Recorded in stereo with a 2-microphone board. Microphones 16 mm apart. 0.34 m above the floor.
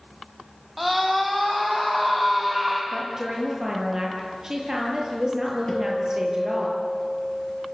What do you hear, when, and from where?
0.8 s a scream: 5° right (ahead or behind), 2.5 m
2.9 s a woman speaking: 40° right (ahead or behind), 7 m
5.7 s a guitar: 40° left (ahead or behind), 6.5 m